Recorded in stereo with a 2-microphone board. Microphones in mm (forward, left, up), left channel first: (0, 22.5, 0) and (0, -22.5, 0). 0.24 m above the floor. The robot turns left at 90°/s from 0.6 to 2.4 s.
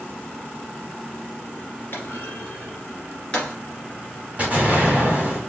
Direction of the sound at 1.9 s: 60° left (ahead or behind).